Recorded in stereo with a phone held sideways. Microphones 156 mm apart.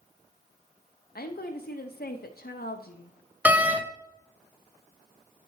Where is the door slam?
10° right (ahead or behind), 0.6 m.